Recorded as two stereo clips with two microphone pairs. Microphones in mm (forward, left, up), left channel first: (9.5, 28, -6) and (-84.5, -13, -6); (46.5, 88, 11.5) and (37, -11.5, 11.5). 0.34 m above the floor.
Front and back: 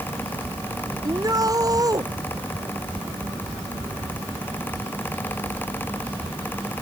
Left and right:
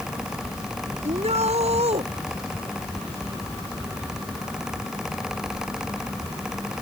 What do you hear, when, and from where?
1.0 s a shout: 100° right